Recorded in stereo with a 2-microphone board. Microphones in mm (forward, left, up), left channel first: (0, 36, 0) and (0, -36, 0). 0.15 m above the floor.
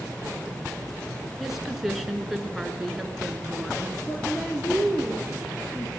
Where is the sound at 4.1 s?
15° left (ahead or behind), 2.5 m.